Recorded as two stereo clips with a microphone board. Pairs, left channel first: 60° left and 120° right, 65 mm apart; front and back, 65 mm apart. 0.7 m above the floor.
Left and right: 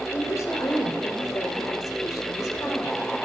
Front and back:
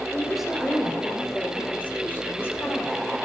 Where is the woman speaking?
100° left, 3.5 m; by 3.0 s 35° left, 2.5 m.